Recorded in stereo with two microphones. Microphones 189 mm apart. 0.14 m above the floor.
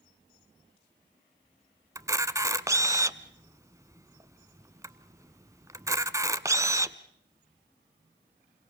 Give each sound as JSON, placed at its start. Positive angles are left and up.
{"t": 1.9, "sound": "a camera shutter", "side_deg": -15, "distance_m": 0.8}